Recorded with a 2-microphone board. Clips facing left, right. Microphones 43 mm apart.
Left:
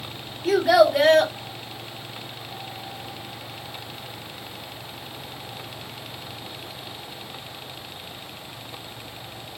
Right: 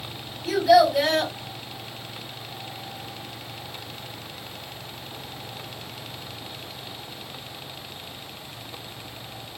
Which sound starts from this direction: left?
A child speaking, at 0.5 s.